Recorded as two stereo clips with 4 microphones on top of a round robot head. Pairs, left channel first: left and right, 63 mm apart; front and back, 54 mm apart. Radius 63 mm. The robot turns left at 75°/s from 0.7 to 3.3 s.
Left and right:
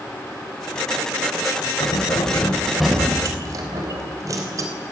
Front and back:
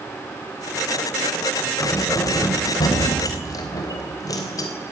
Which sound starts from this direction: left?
Keys jangling, at 1.8 s.